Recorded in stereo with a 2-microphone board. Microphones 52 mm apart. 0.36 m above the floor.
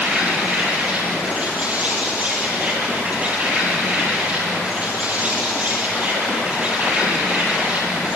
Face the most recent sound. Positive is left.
turn(degrees=-30)  # may be behind; listen again after turning